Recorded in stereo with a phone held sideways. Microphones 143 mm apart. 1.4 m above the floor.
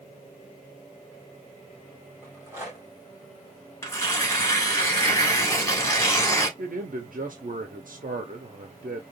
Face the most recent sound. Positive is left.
turn(degrees=-75)  # may be behind; listen again after turning